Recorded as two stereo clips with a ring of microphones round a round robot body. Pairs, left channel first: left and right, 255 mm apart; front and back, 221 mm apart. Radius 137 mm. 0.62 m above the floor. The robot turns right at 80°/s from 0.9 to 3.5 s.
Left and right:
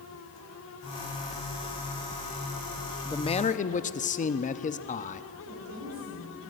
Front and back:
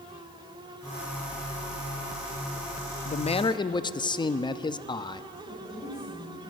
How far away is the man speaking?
About 0.6 m.